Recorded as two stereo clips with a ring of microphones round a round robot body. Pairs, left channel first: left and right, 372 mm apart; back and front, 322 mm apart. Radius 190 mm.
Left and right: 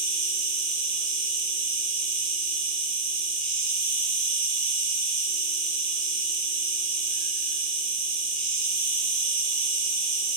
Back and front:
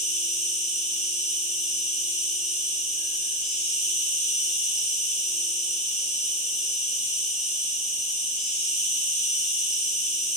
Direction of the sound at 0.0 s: 110° right.